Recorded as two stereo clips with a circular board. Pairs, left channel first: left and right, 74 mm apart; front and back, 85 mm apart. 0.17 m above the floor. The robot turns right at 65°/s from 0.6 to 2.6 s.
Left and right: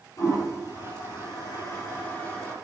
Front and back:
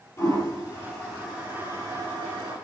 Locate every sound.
0.2 s a toilet flushing: 50° left, 4.5 m; by 2.5 s 175° left, 4.5 m